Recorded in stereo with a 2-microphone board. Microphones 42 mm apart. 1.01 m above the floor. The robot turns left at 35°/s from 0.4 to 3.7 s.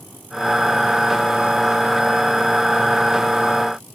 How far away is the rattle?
I don't hear a rattle.